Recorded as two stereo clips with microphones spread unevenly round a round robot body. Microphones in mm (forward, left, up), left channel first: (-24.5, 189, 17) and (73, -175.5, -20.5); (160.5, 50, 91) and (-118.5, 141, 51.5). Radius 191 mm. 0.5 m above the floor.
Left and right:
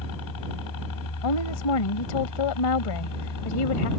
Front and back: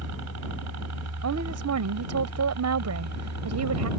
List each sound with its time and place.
0.0 s a helicopter: 145° left; by 4.0 s 150° left
1.2 s a woman speaking: 135° left